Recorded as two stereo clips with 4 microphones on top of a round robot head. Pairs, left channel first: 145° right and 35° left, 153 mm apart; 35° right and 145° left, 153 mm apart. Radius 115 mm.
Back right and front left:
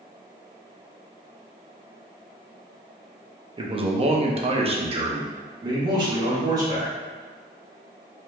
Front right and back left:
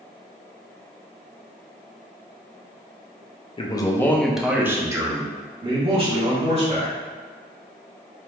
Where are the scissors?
I don't hear scissors.